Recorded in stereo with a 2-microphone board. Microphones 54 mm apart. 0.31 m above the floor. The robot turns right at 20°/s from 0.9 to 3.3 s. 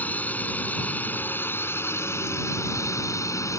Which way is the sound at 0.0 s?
30° left.